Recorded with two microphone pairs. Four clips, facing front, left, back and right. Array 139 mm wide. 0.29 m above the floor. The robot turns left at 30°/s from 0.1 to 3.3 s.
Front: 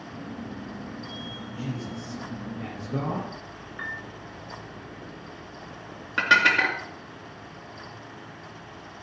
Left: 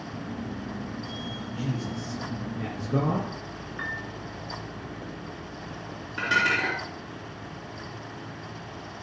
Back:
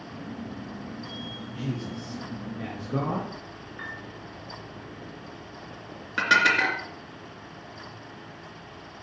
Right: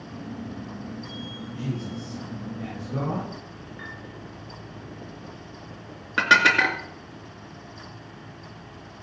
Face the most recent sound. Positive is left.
turn(degrees=-65)